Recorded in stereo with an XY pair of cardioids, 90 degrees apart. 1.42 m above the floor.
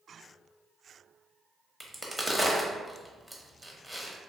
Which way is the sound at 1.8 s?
Straight ahead.